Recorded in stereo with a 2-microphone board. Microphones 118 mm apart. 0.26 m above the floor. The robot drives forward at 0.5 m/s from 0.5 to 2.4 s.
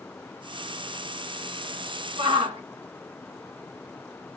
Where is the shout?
50° right (ahead or behind), 3 m.